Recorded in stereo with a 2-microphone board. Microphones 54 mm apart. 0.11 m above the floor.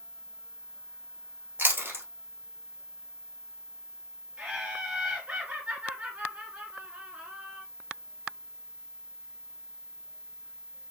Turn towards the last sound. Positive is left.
turn(degrees=-25)  # may be behind; listen again after turning